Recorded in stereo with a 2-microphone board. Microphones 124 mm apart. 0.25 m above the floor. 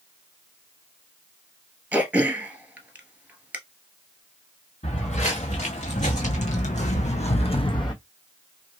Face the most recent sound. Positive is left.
turn(degrees=35)  # may be behind; listen again after turning